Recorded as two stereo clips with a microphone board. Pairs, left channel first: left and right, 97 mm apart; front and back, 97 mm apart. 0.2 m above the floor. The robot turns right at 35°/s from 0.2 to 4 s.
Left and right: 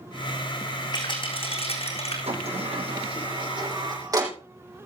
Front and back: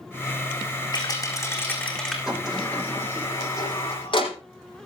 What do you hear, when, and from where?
0.9 s a rattle: 45° left, 4 m; by 2.2 s 85° left, 4 m
2.3 s a sliding door: 95° right, 5.5 m; by 4.3 s 35° right, 5.5 m